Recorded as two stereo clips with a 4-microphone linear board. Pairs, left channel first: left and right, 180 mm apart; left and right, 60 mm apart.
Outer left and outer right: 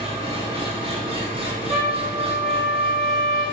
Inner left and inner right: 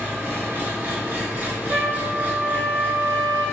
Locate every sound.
0.0 s an engine running: 30° right (ahead or behind), 1.0 m
1.7 s a trumpet: 55° right (ahead or behind), 1.4 m